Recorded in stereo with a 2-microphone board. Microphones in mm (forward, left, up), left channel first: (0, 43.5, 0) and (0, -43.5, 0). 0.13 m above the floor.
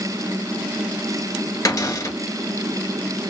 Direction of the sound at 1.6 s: 45° left (ahead or behind).